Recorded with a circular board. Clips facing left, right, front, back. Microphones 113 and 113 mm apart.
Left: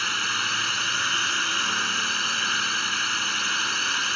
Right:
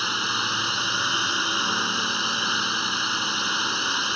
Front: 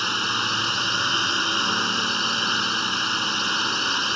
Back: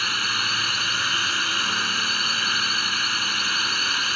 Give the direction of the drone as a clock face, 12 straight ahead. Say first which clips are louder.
Right 2 dB, front 2 dB; 1 o'clock.